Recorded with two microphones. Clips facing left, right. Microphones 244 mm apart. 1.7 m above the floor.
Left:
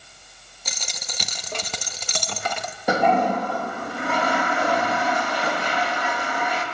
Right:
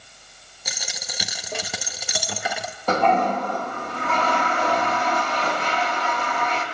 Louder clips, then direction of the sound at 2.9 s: Left 1 dB; 10° left (ahead or behind).